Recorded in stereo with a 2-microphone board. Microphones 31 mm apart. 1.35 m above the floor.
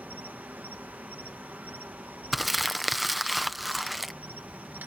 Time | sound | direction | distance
0.0 | an insect | 70° right (ahead or behind) | ?
2.3 | crumpling | centre (ahead or behind) | ?